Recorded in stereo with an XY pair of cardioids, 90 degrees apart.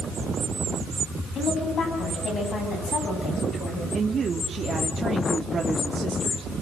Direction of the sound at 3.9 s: 40° right.